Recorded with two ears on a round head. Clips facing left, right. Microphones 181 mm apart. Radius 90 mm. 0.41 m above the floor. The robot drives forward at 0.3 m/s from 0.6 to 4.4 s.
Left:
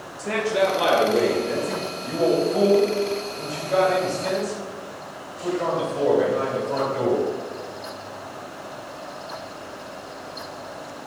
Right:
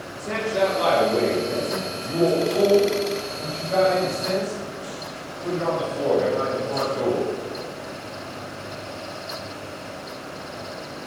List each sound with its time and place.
0.2 s a man speaking: 25° left (ahead or behind), 1.8 m; by 7.3 s 15° left (ahead or behind), 2.5 m